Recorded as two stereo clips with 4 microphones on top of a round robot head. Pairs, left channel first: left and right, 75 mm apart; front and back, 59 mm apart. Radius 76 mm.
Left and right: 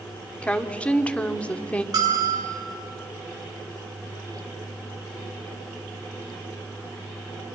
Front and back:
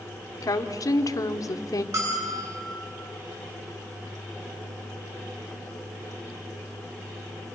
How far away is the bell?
About 8.5 m.